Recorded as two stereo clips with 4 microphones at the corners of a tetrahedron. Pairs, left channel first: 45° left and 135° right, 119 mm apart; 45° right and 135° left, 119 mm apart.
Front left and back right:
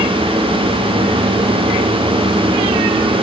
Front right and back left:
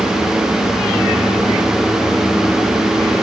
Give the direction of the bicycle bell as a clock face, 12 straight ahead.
I don't hear a bicycle bell.